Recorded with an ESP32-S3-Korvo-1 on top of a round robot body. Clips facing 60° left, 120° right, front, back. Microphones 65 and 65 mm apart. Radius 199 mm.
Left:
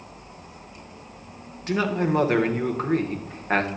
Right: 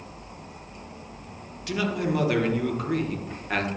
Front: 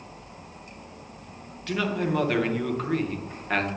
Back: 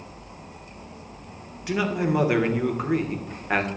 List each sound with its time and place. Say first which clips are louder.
1.7 s a man speaking: left 3 dB, back 2 dB; 105° left, 1.4 m